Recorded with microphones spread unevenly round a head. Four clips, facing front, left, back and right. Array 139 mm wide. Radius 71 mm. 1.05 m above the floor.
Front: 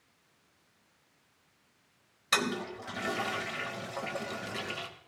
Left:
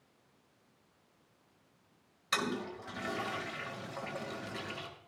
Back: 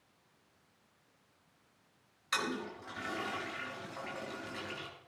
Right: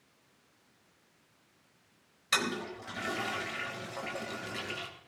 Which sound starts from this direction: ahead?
A toilet flushing, at 2.3 s.